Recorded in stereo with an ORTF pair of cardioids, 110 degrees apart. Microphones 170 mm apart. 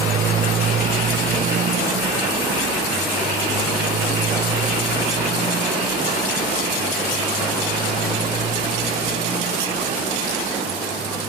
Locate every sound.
0.0 s a motorcycle: 50° right; by 11.3 s 40° right